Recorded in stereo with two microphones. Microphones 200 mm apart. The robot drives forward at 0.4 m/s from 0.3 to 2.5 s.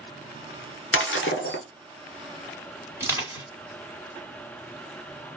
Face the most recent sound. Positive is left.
turn(degrees=-15)  # may be behind; listen again after turning